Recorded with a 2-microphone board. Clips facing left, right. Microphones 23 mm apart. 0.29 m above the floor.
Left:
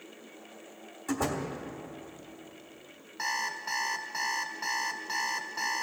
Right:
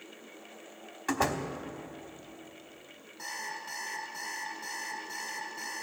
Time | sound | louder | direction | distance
1.1 | a door slam | right 2 dB | 55° right (ahead or behind) | 1.1 m
3.2 | an alarm clock | left 7 dB | 50° left (ahead or behind) | 1.5 m